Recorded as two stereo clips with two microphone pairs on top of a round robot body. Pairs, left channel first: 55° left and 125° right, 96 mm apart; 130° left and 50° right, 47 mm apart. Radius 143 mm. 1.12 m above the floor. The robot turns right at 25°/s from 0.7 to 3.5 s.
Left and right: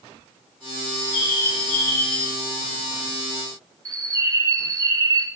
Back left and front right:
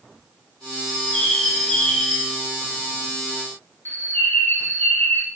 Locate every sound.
0.9 s a bird: 40° left, 1.7 m; by 2.3 s 80° left, 1.7 m
3.9 s a bird: straight behind, 0.5 m